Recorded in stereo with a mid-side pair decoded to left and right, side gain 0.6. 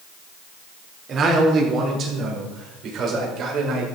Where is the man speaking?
45° right, 4 m; by 3.9 s 60° right, 5.5 m.